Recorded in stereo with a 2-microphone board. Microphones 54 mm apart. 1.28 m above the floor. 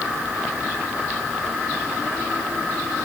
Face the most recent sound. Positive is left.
No sound to turn to.